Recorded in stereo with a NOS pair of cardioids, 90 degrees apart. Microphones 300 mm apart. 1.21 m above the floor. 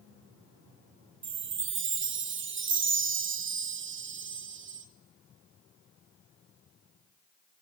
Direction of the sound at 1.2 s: 40° right.